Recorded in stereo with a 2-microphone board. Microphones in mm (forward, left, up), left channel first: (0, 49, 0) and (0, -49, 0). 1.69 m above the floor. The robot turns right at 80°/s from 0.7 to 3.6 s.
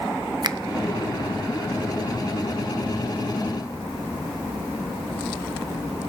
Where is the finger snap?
45° right (ahead or behind), 0.5 m.